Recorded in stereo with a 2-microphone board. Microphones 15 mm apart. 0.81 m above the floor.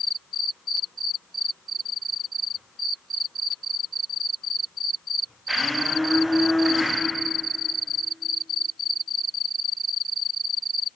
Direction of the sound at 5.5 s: 5° left (ahead or behind).